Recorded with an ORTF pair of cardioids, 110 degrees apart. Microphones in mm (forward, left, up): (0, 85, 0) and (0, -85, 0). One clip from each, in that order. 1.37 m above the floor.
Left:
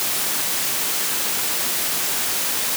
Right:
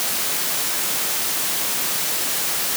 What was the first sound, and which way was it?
Only background noise.